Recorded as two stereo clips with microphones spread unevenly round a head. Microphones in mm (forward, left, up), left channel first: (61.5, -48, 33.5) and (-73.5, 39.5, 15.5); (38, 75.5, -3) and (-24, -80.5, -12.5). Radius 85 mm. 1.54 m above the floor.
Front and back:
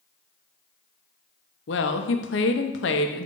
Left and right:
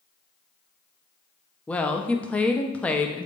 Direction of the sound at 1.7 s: 15° right.